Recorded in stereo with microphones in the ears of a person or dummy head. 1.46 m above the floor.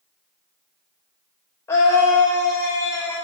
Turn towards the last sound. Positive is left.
turn(degrees=15)  # may be behind; listen again after turning